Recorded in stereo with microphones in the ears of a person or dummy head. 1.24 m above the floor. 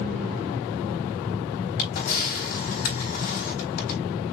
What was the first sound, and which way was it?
A camera shutter, 55° left (ahead or behind).